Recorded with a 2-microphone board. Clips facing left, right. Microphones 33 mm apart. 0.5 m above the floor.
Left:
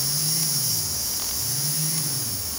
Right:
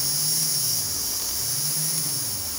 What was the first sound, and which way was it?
Only background noise.